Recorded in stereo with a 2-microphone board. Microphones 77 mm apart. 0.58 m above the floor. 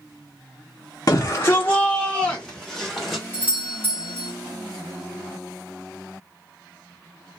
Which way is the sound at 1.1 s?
45° left (ahead or behind).